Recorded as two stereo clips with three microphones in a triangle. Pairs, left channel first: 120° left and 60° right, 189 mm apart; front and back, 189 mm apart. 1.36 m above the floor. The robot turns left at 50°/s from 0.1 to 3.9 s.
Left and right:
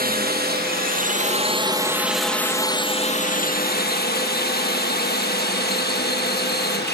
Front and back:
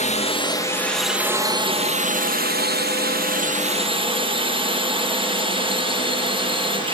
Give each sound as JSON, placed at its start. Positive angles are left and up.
{"t": 0.0, "sound": "a drone", "azimuth_deg": -45}